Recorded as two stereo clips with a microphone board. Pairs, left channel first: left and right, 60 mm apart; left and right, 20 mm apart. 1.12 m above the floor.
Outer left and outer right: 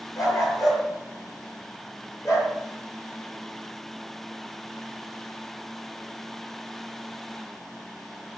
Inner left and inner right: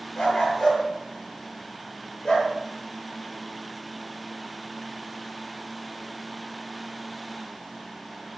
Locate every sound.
0.2 s a dog barking: 70° left (ahead or behind), 7.5 m; by 2.5 s 65° left (ahead or behind), 9 m